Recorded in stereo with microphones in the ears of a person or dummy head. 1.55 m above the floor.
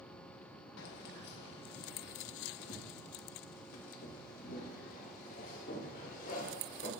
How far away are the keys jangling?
About 1.0 m.